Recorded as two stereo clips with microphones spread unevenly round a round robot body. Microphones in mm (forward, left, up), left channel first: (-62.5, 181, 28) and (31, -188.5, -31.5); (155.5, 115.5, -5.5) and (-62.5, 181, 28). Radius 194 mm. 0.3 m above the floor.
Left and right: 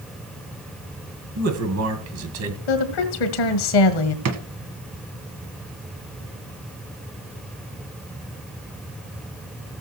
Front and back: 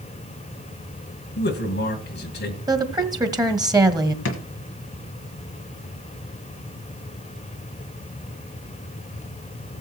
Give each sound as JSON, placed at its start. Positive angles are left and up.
{"t": 1.4, "sound": "a man speaking", "azimuth_deg": -40, "distance_m": 1.8}
{"t": 2.7, "sound": "a woman speaking", "azimuth_deg": 85, "distance_m": 1.8}
{"t": 4.2, "sound": "a drawer", "azimuth_deg": -30, "distance_m": 1.3}